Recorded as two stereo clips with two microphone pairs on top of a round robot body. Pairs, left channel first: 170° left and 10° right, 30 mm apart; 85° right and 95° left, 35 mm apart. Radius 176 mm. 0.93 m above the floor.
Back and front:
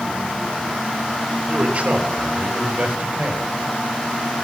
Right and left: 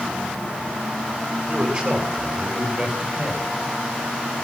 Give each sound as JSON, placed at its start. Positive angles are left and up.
{"t": 1.5, "sound": "a man speaking", "azimuth_deg": 40, "distance_m": 6.0}